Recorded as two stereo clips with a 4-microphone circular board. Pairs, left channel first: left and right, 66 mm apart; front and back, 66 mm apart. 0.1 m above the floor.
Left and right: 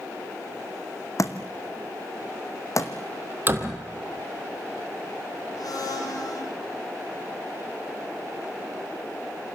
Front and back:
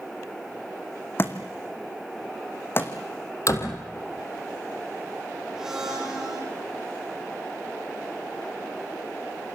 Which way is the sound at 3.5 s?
35° right.